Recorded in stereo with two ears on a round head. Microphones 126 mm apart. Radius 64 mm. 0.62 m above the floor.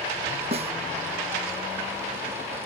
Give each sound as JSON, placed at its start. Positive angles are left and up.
{"t": 0.5, "sound": "a snare drum", "side_deg": -45}